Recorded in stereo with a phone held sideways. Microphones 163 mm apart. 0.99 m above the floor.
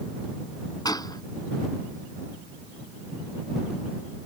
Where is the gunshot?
25° left (ahead or behind).